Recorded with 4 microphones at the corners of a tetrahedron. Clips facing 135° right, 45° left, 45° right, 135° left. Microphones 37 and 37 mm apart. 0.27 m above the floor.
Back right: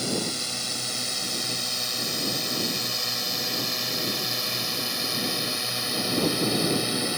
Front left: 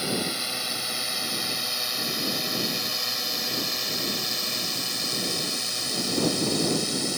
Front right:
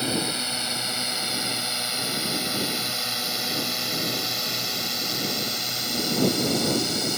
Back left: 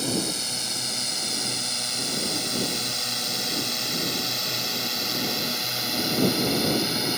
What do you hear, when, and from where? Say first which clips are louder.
0.0 s a drone: front left 1 dB, front right 1 dB; 5° right; by 7.2 s 165° right